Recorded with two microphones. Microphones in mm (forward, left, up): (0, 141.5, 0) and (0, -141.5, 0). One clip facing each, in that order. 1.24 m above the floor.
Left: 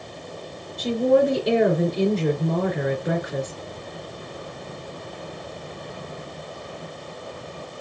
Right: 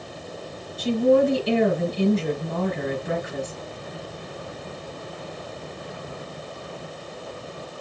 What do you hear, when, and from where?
0.8 s a woman speaking: 75° left (ahead or behind), 3 m